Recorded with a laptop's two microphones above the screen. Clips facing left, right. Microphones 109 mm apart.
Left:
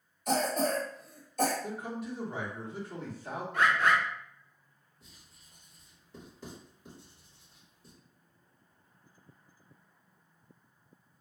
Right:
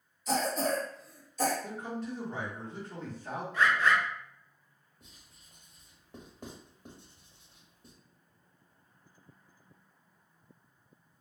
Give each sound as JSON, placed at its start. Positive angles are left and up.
{"t": 0.3, "sound": "a cough", "side_deg": 55, "distance_m": 0.7}
{"t": 1.6, "sound": "a man speaking", "side_deg": 15, "distance_m": 1.0}
{"t": 3.5, "sound": "a bird", "side_deg": 55, "distance_m": 0.6}
{"t": 5.0, "sound": "writing", "side_deg": -55, "distance_m": 1.3}